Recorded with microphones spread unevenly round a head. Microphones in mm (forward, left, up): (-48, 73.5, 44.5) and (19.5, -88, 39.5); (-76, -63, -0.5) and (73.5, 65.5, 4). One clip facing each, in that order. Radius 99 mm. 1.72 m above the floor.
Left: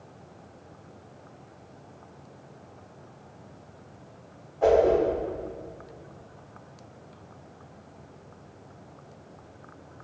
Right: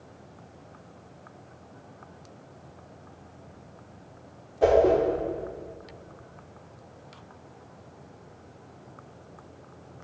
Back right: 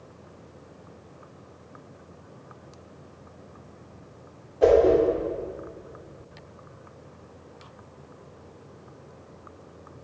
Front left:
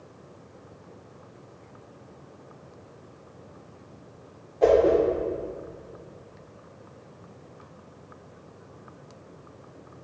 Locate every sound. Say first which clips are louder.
4.6 s a whoosh: even, back right 1 dB; 65° right, 1.5 m